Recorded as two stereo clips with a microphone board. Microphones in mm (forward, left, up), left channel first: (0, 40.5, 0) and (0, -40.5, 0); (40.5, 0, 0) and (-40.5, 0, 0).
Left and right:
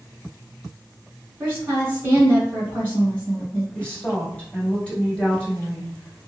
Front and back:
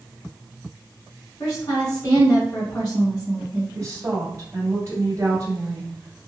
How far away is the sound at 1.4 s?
About 2 m.